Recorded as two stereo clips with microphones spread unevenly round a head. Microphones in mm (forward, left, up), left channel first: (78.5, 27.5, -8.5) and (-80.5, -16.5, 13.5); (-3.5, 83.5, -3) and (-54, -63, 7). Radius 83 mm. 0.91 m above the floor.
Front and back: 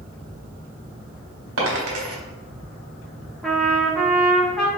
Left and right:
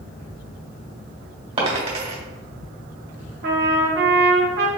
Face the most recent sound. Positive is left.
turn(degrees=-70)